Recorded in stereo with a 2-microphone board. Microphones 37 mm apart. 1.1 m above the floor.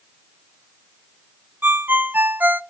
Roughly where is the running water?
I don't hear running water.